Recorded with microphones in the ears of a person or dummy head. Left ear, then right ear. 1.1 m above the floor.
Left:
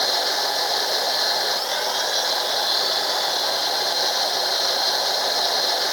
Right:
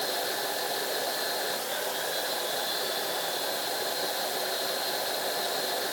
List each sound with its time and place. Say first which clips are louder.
0.0 s a machine running: left 9 dB; 50° left (ahead or behind)